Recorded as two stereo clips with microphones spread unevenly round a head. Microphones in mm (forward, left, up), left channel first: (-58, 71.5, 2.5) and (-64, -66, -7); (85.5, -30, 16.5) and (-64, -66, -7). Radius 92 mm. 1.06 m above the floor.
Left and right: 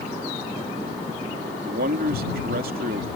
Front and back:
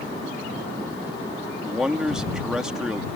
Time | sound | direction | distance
1.6 | a man speaking | 80° right | ?